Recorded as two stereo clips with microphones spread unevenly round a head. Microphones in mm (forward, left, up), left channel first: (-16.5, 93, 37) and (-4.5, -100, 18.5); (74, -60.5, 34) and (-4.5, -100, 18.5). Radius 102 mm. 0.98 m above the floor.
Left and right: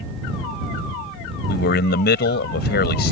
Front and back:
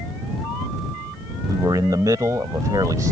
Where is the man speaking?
135° left.